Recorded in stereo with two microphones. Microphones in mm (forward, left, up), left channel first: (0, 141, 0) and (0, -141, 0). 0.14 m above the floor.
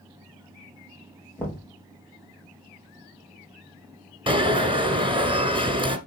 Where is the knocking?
5° left (ahead or behind), 2.5 m.